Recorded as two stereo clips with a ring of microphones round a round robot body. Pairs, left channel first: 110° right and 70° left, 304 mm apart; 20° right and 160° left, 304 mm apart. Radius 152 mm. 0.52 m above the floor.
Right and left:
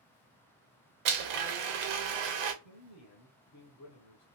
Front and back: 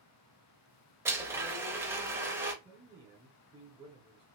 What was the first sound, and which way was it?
A blender, 75° left.